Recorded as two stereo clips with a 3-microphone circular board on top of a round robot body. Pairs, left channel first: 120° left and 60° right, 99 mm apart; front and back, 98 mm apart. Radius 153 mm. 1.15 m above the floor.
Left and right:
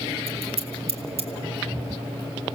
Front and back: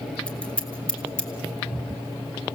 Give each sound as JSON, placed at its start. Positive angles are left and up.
{"t": 0.3, "sound": "scissors", "azimuth_deg": -80, "distance_m": 2.0}